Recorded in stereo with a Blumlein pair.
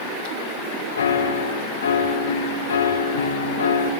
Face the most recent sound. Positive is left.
turn(degrees=65)